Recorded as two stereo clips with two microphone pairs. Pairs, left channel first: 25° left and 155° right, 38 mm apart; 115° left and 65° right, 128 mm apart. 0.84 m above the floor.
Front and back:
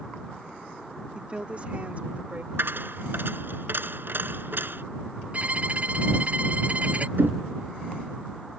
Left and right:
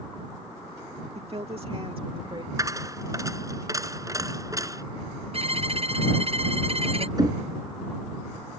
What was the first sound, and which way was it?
A woman speaking, 100° right.